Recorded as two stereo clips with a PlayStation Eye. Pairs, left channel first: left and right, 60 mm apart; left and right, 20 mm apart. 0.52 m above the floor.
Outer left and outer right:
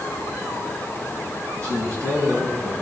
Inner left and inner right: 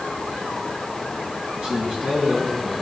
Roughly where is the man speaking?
Right.